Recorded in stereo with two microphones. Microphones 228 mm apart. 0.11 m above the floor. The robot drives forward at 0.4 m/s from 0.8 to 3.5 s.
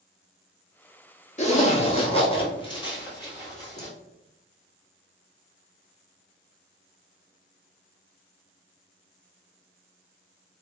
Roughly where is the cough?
I don't hear a cough.